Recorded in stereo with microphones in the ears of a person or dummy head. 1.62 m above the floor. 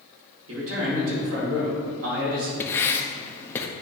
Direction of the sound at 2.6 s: 15° left (ahead or behind).